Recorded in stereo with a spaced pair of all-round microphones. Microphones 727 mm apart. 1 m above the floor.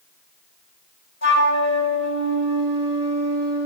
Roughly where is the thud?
No thud in this recording.